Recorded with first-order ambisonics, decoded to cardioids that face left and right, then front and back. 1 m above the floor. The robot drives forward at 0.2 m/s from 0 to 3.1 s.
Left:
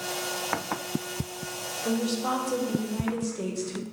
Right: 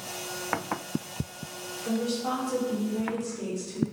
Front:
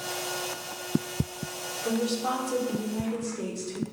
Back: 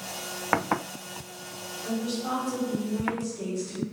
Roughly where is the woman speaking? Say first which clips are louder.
Left 1 dB, front 3 dB; ahead left.